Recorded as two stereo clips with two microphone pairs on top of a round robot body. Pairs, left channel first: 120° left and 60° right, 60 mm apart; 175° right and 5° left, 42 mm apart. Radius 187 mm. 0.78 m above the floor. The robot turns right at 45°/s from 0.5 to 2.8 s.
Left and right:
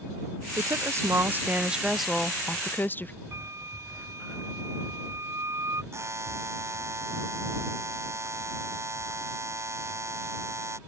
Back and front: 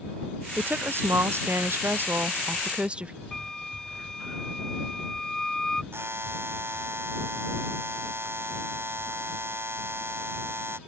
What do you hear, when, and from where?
0.6 s a woman speaking: 35° right; by 3.1 s 65° left
3.3 s a flute: 100° right
5.9 s a buzzer: 15° right